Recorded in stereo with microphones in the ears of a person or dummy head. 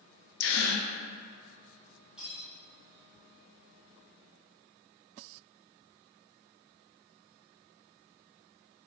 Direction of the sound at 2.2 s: Centre (ahead or behind).